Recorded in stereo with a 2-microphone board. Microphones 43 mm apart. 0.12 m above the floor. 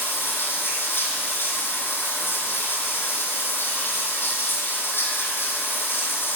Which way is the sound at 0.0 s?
60° left (ahead or behind).